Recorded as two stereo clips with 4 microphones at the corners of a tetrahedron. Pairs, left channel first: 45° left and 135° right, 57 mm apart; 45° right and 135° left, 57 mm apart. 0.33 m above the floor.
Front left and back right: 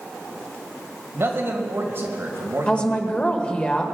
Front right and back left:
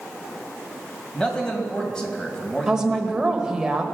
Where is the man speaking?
115° right, 2 m.